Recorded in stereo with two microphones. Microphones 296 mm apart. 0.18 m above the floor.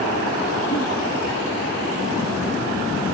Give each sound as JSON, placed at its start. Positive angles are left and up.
{"t": 0.7, "sound": "a giggle", "side_deg": 70, "distance_m": 1.9}